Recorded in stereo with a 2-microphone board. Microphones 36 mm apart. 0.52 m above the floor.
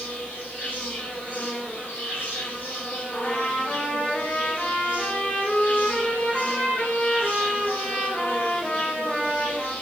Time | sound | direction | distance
0.0 | an insect | 60° left (ahead or behind) | 2.5 m
3.1 | a trumpet | 45° left (ahead or behind) | 2.5 m